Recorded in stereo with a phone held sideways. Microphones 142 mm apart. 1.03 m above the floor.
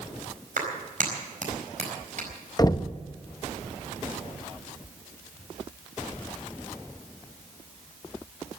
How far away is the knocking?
About 0.6 m.